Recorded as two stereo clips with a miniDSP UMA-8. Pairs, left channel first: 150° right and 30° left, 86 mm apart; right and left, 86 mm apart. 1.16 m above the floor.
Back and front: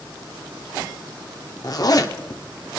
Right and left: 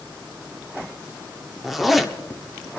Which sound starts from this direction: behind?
A zipper, at 1.6 s.